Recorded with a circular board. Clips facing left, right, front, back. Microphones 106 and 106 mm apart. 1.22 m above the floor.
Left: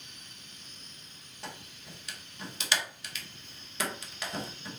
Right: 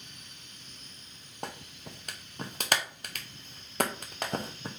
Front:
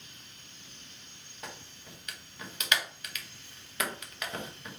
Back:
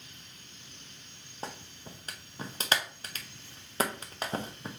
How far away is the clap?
About 0.8 m.